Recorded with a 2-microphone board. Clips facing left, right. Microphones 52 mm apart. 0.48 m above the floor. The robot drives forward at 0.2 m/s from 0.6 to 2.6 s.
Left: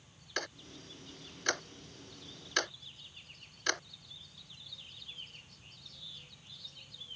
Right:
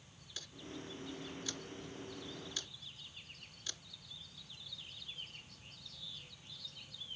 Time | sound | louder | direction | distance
0.4 | ticking | left 7 dB | 65° left (ahead or behind) | ?